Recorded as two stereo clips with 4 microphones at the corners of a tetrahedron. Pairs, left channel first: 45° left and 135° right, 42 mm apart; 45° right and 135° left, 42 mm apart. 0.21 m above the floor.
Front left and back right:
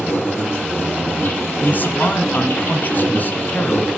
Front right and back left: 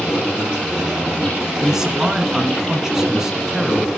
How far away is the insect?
About 7 m.